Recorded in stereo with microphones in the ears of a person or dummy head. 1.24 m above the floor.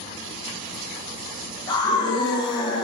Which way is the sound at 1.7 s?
20° left (ahead or behind).